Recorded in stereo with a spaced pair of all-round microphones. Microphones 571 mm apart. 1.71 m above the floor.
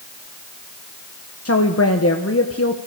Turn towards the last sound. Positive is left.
turn(degrees=25)  # may be behind; listen again after turning